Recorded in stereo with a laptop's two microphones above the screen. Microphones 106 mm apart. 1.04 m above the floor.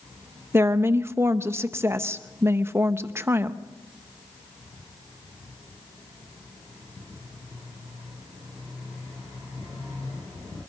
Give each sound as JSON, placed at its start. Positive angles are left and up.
{"t": 0.5, "sound": "a woman speaking", "side_deg": -20, "distance_m": 0.8}